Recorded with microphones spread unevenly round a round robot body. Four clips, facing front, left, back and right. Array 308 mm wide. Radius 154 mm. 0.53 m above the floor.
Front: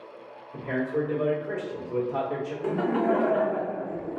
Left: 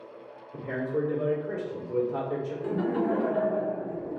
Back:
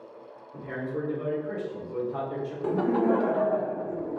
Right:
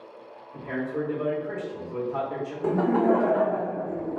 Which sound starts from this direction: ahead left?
A man speaking, at 0.5 s.